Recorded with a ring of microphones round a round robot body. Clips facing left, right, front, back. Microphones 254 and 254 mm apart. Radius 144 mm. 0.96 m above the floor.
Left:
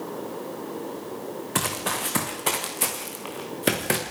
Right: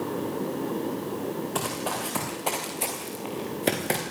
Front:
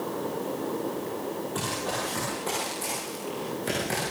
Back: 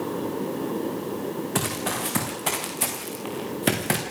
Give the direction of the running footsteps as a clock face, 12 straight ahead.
7 o'clock.